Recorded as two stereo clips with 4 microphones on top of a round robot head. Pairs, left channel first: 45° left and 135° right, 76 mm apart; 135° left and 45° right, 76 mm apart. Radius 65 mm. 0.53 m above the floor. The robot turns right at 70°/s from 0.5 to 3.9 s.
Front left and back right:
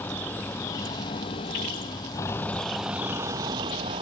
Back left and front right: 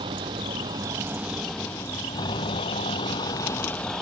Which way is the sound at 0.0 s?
20° right.